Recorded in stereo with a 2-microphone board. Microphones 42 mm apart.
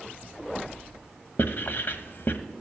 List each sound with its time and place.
1.4 s writing: 55° left (ahead or behind), 0.9 m